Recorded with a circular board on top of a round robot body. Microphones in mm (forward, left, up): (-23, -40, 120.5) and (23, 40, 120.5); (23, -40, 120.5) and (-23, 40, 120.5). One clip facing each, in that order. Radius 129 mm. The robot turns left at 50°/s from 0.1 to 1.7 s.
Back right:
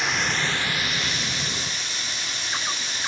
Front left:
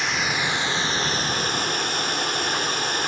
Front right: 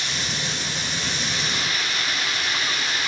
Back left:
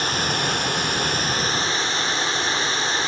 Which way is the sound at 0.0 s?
150° left.